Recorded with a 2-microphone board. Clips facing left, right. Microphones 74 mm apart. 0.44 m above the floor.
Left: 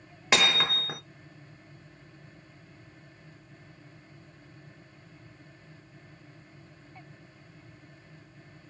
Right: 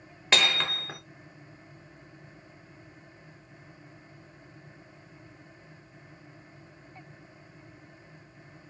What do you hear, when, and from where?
0.3 s hammering: 10° left (ahead or behind), 0.6 m